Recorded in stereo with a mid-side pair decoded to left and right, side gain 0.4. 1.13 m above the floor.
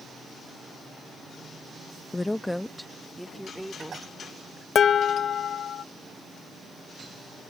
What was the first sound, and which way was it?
A woman speaking, 20° left.